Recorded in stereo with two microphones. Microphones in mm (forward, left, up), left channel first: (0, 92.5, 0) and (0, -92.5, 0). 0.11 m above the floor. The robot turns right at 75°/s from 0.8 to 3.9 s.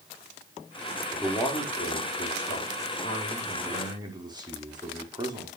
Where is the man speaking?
5° right, 5 m; by 5.5 s 155° right, 5 m.